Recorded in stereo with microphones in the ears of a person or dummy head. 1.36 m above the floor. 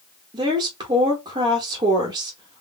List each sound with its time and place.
0.3 s a woman speaking: 20° right (ahead or behind), 1.2 m